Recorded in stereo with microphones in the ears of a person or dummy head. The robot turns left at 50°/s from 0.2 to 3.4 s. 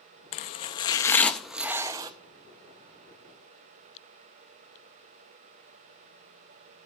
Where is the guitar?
I don't hear a guitar.